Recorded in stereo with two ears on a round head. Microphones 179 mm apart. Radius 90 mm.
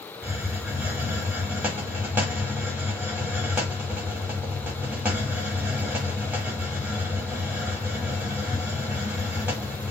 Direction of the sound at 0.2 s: 5° right (ahead or behind).